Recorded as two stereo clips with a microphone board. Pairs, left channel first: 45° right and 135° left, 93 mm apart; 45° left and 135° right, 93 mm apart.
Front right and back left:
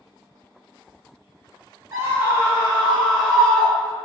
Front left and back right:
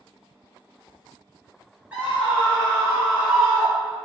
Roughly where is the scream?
Behind.